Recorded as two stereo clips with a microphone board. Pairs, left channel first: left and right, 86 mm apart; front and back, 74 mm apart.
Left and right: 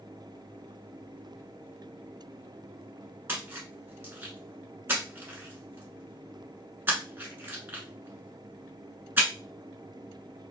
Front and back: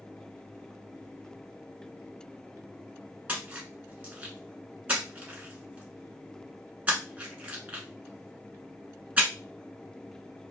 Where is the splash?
130° right, 0.9 m.